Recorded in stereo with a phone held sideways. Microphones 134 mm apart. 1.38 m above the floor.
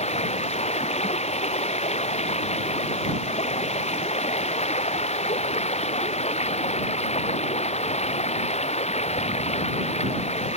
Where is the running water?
55° left (ahead or behind).